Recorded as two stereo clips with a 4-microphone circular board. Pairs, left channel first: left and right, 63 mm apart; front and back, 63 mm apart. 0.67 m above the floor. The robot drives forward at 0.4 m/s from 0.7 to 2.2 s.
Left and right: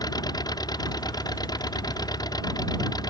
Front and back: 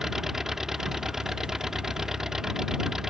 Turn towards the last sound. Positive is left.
turn(degrees=95)